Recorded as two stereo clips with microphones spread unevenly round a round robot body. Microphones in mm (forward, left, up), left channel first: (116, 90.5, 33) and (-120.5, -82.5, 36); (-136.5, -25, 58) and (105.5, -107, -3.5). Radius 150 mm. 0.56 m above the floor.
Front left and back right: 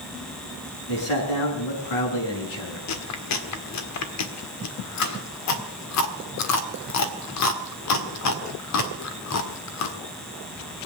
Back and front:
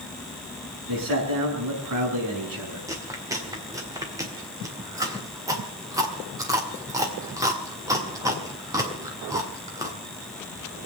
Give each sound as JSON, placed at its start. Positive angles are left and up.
{"t": 0.9, "sound": "a man speaking", "azimuth_deg": 20, "distance_m": 6.5}
{"t": 2.9, "sound": "chewing", "azimuth_deg": 50, "distance_m": 1.7}